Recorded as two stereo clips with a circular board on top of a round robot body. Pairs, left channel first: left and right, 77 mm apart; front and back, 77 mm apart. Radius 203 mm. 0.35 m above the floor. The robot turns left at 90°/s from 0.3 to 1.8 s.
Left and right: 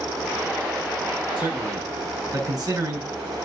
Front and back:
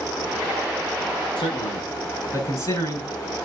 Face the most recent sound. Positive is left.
turn(degrees=-55)